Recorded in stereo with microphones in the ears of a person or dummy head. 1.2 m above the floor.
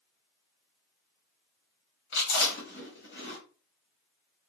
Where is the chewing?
60° left (ahead or behind), 1.3 m.